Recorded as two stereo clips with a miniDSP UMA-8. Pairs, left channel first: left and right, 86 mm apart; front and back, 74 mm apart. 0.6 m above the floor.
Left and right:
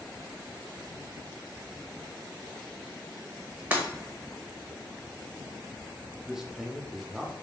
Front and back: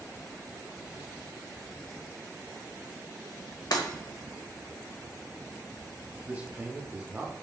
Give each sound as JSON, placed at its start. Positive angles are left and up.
{"t": 3.7, "sound": "breaking glass", "azimuth_deg": -25, "distance_m": 0.7}
{"t": 6.2, "sound": "a man speaking", "azimuth_deg": -160, "distance_m": 0.5}